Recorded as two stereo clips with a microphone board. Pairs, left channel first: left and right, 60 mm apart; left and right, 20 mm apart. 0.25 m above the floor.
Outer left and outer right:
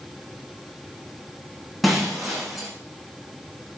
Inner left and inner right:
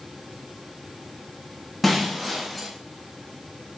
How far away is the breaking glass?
About 10 m.